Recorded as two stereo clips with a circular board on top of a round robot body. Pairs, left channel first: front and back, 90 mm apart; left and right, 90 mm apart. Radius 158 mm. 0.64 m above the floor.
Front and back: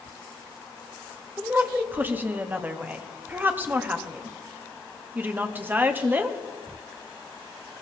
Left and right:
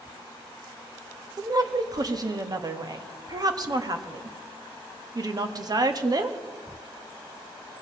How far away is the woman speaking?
About 1.6 m.